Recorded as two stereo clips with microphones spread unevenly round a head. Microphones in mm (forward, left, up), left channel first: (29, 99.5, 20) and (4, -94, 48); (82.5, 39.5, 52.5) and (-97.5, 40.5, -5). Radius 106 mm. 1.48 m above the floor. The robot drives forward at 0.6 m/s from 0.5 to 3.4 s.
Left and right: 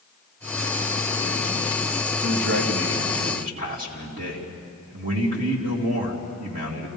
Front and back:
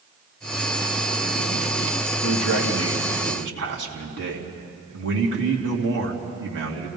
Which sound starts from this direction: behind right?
A man speaking, at 2.2 s.